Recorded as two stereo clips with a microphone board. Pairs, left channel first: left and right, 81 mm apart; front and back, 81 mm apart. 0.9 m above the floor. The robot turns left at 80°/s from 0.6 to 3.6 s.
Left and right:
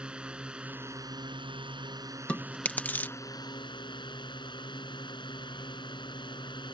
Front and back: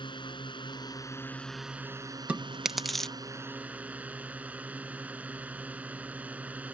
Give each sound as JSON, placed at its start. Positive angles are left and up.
{"t": 0.0, "sound": "a drone", "azimuth_deg": -10}
{"t": 2.3, "sound": "chewing", "azimuth_deg": 135}